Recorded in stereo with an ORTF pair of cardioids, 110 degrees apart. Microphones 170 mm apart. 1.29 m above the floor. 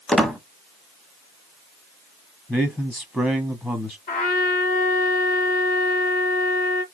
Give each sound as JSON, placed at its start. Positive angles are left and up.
{"t": 0.1, "sound": "a squeak", "azimuth_deg": 5, "distance_m": 0.8}
{"t": 2.5, "sound": "a man speaking", "azimuth_deg": 5, "distance_m": 0.8}
{"t": 4.1, "sound": "a trumpet", "azimuth_deg": 50, "distance_m": 1.7}